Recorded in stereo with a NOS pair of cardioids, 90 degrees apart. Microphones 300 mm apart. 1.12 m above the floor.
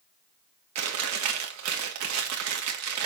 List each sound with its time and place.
0.8 s chewing: 65° right, 2.5 m